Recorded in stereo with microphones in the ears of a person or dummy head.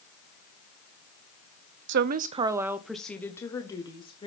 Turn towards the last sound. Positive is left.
turn(degrees=20)  # may be behind; listen again after turning